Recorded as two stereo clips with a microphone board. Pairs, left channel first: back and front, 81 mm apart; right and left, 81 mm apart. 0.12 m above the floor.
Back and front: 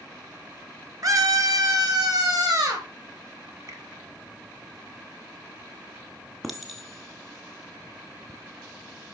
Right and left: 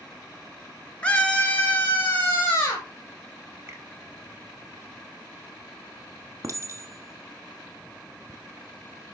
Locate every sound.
1.0 s a scream: 20° right, 1.7 m; by 2.9 s 35° right, 3 m
3.7 s a finger snap: 35° left, 2.0 m
6.4 s a clink: 90° left, 1.4 m